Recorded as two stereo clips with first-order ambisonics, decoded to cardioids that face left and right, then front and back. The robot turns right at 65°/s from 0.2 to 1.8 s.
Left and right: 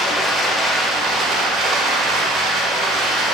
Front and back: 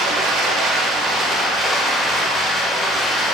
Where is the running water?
170° left, 0.9 m; by 3.4 s 85° right, 0.9 m.